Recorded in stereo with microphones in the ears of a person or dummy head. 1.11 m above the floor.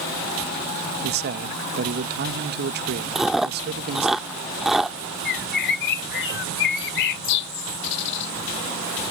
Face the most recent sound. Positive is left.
turn(degrees=60)  # may be behind; listen again after turning